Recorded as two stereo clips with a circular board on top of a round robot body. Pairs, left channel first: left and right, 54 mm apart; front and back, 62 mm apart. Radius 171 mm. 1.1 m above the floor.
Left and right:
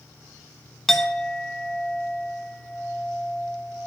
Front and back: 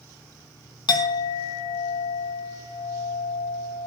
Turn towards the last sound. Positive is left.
turn(degrees=5)